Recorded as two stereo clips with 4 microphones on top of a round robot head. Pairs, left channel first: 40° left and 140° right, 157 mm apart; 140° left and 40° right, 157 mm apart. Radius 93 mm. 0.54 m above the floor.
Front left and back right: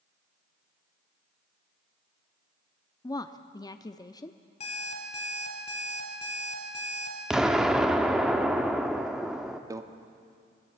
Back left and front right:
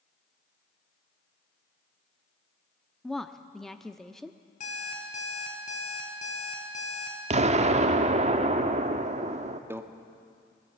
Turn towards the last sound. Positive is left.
turn(degrees=-100)